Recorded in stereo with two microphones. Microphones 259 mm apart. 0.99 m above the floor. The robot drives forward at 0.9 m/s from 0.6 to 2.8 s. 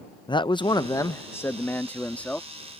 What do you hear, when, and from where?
0.3 s a man speaking: 20° left (ahead or behind); by 2.5 s 5° left (ahead or behind)